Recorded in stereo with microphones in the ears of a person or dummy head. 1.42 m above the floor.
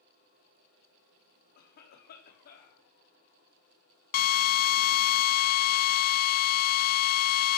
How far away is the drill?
About 0.5 m.